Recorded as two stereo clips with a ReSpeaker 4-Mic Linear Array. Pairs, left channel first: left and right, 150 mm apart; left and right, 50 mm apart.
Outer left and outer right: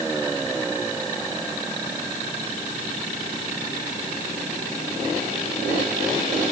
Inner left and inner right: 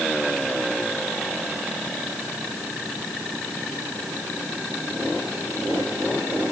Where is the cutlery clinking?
I don't hear cutlery clinking.